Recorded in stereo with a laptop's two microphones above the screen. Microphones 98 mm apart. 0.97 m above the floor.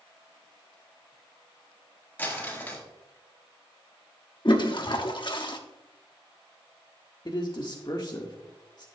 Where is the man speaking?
50° left (ahead or behind), 1.5 m.